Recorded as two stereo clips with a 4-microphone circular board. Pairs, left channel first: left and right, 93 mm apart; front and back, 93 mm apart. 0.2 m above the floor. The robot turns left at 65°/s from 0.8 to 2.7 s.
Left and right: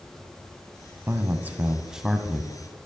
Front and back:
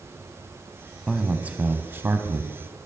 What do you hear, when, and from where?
1.1 s a man speaking: 105° right, 1.1 m; by 2.6 s 155° left, 1.1 m